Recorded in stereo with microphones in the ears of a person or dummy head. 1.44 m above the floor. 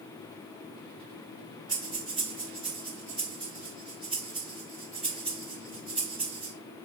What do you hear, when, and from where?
1.7 s breathing: 5° right (ahead or behind), 1.8 m